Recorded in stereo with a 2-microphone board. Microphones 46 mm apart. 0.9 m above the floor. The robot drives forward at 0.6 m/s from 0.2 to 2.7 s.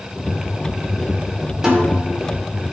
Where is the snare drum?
15° right (ahead or behind), 1.9 m; by 2.0 s 10° right (ahead or behind), 2 m.